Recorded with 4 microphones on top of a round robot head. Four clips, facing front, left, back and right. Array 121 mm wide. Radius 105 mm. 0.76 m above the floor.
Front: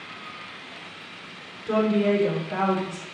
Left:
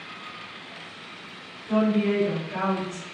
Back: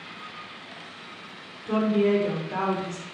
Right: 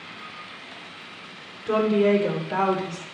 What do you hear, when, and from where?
1.7 s a woman speaking: 80° right, 3.5 m; by 3.0 s 110° right, 2 m